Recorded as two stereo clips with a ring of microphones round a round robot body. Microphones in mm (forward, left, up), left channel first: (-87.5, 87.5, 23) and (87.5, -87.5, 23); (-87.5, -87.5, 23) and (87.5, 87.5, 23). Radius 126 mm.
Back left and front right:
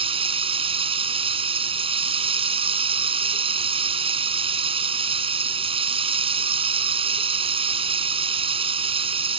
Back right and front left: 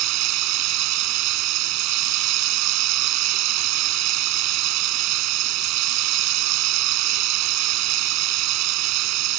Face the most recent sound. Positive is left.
turn(degrees=25)